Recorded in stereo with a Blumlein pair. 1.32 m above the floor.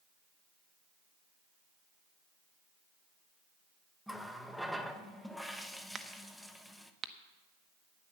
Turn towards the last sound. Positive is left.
turn(degrees=-20)